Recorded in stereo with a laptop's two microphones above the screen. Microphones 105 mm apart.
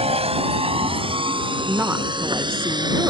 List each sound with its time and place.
0.0 s a vehicle: 80° right; by 3.1 s 45° right (ahead or behind)
1.7 s a woman speaking: 20° right (ahead or behind)